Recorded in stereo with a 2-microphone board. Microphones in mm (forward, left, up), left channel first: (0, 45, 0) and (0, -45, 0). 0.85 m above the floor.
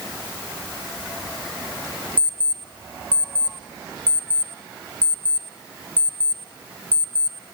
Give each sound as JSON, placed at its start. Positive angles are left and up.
{"t": 2.2, "sound": "an alarm clock", "side_deg": -15, "distance_m": 2.5}